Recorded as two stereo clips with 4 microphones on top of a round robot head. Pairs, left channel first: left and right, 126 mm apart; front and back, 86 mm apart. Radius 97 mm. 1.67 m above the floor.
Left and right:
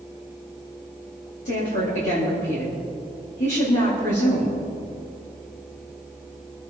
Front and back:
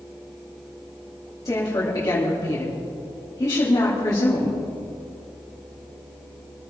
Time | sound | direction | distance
1.4 | a woman speaking | 50° left | 4 m